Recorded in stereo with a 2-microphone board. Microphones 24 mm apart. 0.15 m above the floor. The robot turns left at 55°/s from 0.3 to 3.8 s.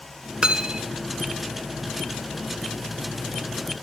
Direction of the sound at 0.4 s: 35° right (ahead or behind).